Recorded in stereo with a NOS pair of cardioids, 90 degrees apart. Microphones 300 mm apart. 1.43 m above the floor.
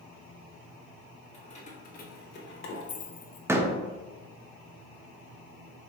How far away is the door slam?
About 0.6 m.